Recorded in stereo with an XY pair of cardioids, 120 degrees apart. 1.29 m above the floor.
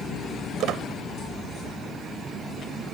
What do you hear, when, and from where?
0.6 s a squeak: 65° right